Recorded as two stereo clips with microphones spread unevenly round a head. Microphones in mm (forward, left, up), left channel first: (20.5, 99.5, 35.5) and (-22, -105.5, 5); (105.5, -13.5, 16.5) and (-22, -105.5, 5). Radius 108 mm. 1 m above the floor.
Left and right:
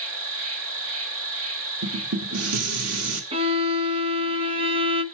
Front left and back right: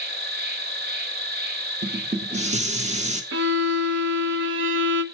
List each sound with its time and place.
0.0 s an insect: 125° right, 2.5 m
1.8 s dishes clattering: 100° right, 1.7 m
3.3 s a violin: 170° right, 0.8 m